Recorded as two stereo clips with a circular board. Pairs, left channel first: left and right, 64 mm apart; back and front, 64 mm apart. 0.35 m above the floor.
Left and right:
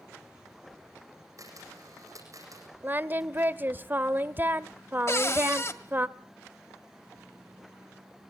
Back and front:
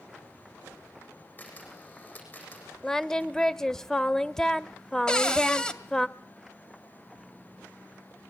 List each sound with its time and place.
1.4 s a camera shutter: 115° right, 8 m
2.8 s singing: 100° right, 0.7 m
5.1 s a cupboard door: 110° left, 2 m